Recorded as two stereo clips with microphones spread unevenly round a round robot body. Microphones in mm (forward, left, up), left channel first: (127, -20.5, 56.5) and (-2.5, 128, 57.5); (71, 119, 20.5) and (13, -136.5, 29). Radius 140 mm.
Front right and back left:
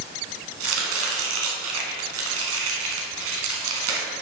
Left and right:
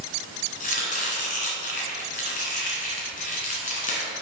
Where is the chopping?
140° left, 1.4 m.